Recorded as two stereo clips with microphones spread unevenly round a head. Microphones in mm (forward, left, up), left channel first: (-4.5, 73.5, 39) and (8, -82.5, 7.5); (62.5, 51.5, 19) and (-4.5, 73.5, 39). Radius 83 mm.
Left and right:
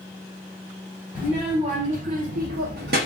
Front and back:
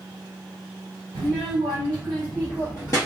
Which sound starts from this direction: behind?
A child speaking, at 1.1 s.